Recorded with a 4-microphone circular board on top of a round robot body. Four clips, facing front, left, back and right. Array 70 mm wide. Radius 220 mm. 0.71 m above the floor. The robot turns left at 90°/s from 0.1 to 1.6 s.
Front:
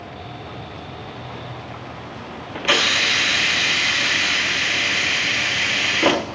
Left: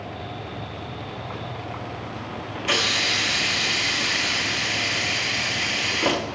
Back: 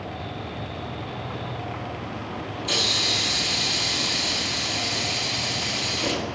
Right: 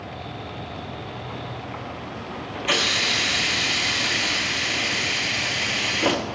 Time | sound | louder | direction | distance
2.5 | a hiss | even, front 10 dB | straight ahead | 1.5 m